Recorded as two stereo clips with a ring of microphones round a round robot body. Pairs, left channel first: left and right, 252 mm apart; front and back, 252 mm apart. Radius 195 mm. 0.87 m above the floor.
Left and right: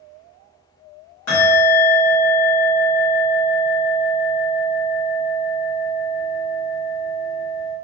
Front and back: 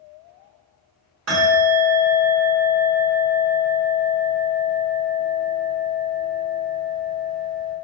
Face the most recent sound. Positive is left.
turn(degrees=135)